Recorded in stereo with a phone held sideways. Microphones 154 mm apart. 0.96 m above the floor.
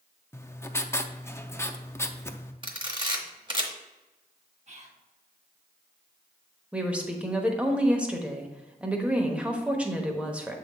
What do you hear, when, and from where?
0.3 s writing: 15° left (ahead or behind), 0.5 m
2.6 s a camera shutter: 30° right (ahead or behind), 1.1 m
4.7 s whispering: 50° right (ahead or behind), 1.4 m
6.7 s a woman speaking: 10° right (ahead or behind), 1.1 m